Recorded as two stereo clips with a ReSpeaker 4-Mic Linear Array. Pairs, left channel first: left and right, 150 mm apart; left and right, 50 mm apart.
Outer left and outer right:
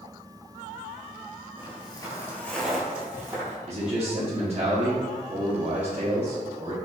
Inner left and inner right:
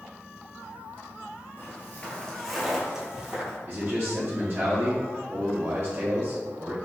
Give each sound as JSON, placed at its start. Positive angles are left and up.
{"t": 1.6, "sound": "footsteps", "side_deg": 40, "distance_m": 0.8}
{"t": 3.7, "sound": "a man speaking", "side_deg": -45, "distance_m": 0.7}